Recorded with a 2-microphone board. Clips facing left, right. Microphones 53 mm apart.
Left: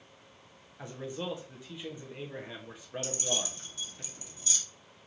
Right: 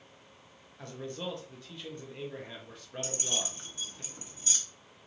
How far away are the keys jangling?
About 1.0 m.